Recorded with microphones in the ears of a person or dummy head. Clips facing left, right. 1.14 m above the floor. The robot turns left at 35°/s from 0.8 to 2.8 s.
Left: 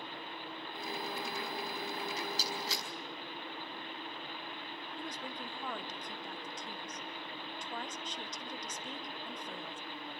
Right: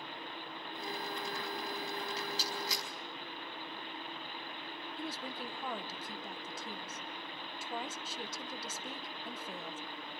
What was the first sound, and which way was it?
A rattle, 45° left (ahead or behind).